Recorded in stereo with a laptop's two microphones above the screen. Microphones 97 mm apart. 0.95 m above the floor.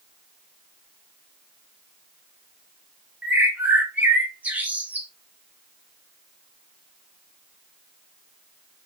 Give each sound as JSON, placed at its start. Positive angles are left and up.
{"t": 3.2, "sound": "a bird", "side_deg": -15, "distance_m": 1.3}